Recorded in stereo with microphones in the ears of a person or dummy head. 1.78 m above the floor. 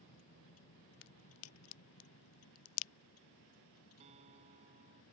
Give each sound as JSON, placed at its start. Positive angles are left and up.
{"t": 0.0, "sound": "a vehicle", "side_deg": 80}
{"t": 1.0, "sound": "a crack", "side_deg": 70}
{"t": 4.0, "sound": "a guitar", "side_deg": -35}